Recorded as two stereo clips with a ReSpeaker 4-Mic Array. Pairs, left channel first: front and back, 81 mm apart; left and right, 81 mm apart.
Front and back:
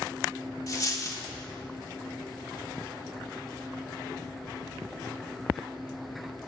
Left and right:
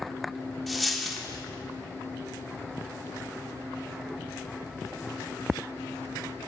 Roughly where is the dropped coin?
Ahead.